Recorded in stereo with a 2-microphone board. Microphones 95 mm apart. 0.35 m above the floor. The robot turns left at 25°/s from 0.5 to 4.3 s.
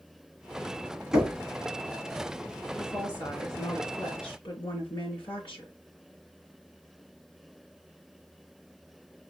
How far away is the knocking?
About 2.0 m.